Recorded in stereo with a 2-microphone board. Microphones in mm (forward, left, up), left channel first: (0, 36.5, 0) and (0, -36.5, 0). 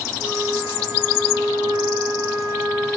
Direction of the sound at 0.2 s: 60° right (ahead or behind).